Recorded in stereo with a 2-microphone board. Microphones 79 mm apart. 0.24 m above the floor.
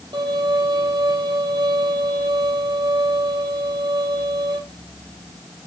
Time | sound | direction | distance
0.1 | a violin | 80° right | 5.5 m